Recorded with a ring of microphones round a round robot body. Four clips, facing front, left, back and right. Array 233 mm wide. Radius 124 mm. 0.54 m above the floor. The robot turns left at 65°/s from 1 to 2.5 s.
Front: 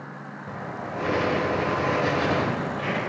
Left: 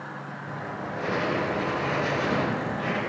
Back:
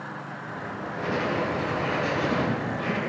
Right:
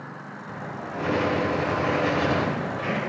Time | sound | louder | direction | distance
0.5 | writing | even, front 2 dB | 25° left | 3 m